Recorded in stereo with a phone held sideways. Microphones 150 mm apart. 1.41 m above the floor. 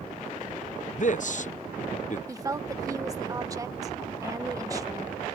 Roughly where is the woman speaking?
Right.